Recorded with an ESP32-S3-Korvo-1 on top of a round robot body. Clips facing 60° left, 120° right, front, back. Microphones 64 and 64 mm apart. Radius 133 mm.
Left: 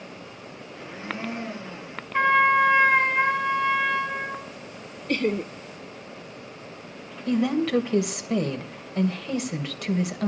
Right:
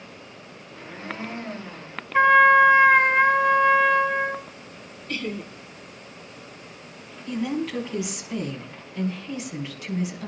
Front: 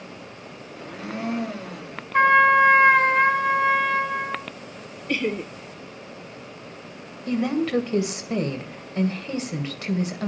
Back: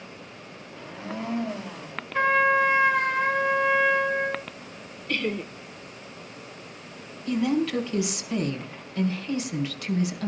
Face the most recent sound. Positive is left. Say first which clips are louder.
# left 5 dB, front 1 dB
turn(degrees=45)